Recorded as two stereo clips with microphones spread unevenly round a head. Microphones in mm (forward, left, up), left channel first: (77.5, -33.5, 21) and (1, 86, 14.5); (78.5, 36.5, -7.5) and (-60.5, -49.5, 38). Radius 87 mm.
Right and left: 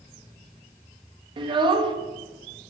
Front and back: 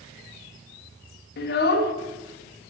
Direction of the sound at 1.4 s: 70° left.